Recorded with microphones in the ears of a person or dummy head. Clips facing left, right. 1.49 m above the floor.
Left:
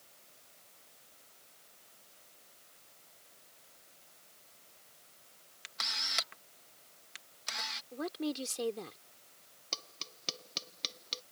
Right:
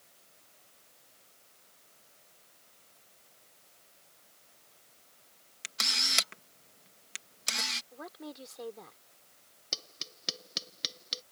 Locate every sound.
5.6 s a camera shutter: 40° right (ahead or behind)
7.9 s a woman speaking: 40° left (ahead or behind)
9.7 s tapping: 15° right (ahead or behind)